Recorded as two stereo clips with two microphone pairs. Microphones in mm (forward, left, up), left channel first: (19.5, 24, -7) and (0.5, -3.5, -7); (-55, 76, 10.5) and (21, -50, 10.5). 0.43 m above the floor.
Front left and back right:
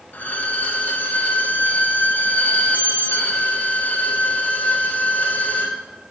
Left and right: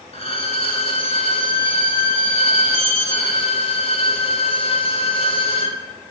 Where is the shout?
I don't hear a shout.